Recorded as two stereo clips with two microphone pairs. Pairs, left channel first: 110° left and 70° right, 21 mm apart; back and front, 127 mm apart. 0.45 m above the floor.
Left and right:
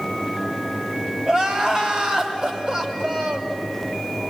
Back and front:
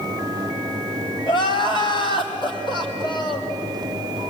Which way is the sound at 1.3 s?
135° right.